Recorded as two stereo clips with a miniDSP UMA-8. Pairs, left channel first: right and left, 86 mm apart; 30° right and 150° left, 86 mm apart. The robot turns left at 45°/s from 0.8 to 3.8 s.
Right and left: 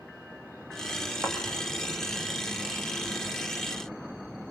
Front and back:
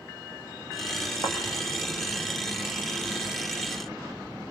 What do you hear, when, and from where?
1.2 s a thud: 5° left, 6 m; by 1.4 s straight ahead, 6 m